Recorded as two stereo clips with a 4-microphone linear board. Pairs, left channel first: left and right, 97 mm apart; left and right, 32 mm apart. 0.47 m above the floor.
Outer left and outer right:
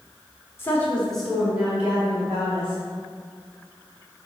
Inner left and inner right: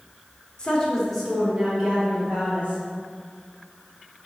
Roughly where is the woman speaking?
Left.